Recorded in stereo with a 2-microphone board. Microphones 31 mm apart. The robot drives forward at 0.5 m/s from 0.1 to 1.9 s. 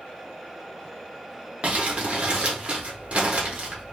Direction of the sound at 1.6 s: 50° right (ahead or behind).